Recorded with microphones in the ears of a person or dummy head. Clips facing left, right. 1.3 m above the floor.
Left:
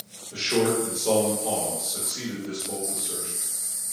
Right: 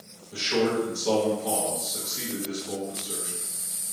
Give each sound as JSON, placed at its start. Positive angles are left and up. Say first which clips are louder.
{"t": 0.3, "sound": "a man speaking", "louder": "left 1 dB", "side_deg": 35, "distance_m": 1.3}